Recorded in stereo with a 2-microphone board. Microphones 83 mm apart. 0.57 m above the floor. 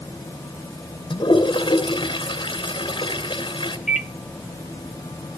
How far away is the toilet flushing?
About 2.5 m.